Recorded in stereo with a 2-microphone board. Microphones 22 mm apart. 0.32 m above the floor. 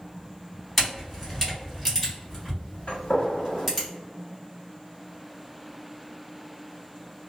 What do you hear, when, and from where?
0.8 s a camera shutter: 5° left (ahead or behind), 1.9 m
2.9 s a gunshot: 50° left (ahead or behind), 1.1 m